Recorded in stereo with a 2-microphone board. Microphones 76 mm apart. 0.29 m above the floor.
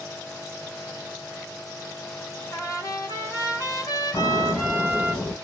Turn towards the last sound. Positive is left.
turn(degrees=20)  # may be behind; listen again after turning